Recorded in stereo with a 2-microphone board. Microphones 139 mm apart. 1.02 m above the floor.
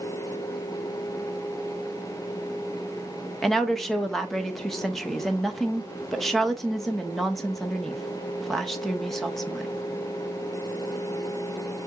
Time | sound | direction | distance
3.4 | a woman speaking | centre (ahead or behind) | 0.7 m